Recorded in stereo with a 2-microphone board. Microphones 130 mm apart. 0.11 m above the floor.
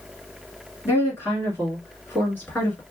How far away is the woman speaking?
About 1.8 m.